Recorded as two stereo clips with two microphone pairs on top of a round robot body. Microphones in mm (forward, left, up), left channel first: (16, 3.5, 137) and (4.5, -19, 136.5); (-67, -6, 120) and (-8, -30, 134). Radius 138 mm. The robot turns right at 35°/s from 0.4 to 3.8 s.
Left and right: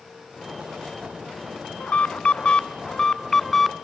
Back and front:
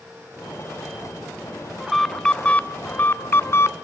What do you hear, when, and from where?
1.8 s an alarm: 75° left, 0.8 m; by 3.7 s 145° left, 0.8 m